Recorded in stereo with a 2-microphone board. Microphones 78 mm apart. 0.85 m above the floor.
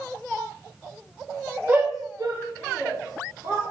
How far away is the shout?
About 0.7 m.